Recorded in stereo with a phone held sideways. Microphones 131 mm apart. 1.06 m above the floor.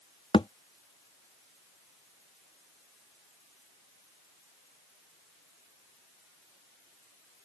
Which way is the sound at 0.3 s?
40° left (ahead or behind).